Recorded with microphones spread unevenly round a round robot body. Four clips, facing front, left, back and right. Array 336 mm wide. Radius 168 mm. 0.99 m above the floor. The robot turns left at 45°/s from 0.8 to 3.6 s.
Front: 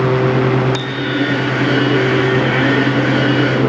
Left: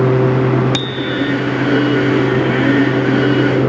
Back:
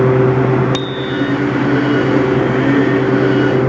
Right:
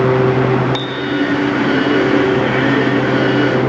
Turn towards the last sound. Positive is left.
turn(degrees=0)